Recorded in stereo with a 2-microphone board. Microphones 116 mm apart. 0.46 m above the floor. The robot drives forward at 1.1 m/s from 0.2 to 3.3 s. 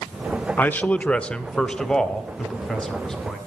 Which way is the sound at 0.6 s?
15° left (ahead or behind).